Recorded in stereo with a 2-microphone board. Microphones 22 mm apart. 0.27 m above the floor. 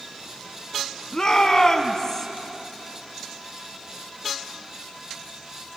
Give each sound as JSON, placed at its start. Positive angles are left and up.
{"t": 1.1, "sound": "a shout", "side_deg": 35, "distance_m": 2.5}